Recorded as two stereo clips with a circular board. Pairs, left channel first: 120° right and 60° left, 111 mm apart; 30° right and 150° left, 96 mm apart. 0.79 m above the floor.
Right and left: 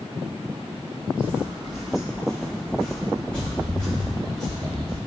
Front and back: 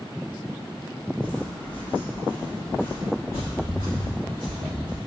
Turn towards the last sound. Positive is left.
turn(degrees=-50)